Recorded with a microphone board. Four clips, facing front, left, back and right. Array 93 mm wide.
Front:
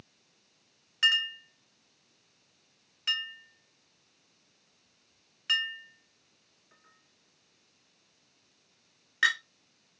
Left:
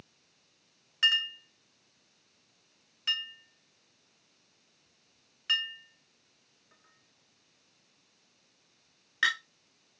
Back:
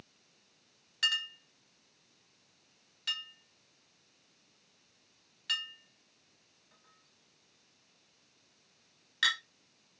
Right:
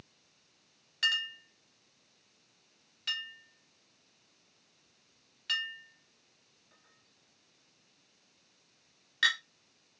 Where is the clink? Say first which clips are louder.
Left 3 dB, front 7 dB; 40° left, 0.9 m.